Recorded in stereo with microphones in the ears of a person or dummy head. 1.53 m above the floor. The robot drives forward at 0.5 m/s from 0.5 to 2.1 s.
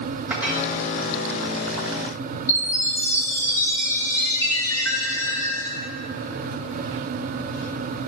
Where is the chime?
10° left (ahead or behind), 1.0 m.